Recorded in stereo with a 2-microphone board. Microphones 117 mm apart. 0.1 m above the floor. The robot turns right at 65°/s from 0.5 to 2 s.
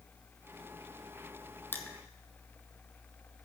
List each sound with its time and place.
1.7 s crushing: 20° left (ahead or behind), 1.2 m; by 2.0 s 5° left (ahead or behind), 1.2 m